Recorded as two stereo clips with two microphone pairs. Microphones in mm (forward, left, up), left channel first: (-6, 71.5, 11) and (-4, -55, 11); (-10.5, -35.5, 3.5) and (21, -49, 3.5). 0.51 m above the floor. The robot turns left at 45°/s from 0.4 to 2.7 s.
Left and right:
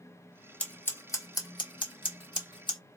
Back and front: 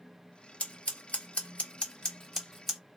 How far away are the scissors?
About 1.5 m.